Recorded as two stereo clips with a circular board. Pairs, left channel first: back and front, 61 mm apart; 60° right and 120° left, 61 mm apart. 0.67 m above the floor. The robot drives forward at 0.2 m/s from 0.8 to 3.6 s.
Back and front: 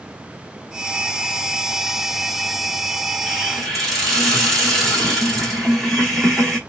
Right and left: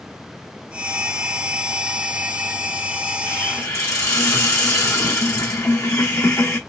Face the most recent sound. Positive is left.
turn(degrees=-90)